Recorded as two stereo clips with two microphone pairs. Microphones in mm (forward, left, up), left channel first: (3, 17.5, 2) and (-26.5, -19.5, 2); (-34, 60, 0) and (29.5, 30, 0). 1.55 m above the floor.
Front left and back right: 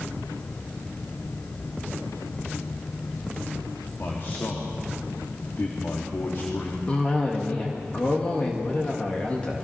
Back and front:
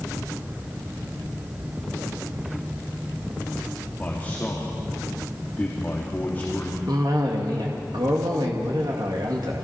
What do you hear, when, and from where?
4.0 s a man speaking: 90° left, 3.5 m
6.9 s a cough: 15° right, 2 m